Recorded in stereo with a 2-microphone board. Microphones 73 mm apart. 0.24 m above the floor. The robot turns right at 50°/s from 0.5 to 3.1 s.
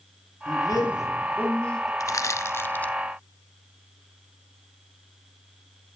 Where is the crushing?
50° left (ahead or behind), 0.7 m; by 2.9 s 20° left (ahead or behind), 0.7 m.